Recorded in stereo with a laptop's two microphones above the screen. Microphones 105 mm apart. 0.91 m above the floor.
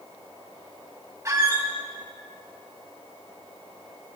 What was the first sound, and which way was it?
A squeak, 30° right (ahead or behind).